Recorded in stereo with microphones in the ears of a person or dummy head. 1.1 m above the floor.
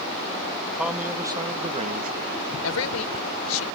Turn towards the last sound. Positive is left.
turn(degrees=80)